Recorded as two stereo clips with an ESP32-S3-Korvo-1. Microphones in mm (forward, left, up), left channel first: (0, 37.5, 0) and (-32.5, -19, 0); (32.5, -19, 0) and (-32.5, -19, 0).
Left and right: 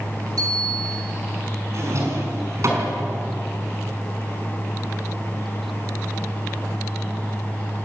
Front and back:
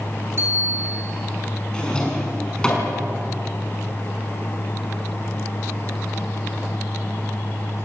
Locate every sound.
0.4 s a bicycle bell: 130° right, 8.5 m
1.7 s a drawer: 75° right, 5.5 m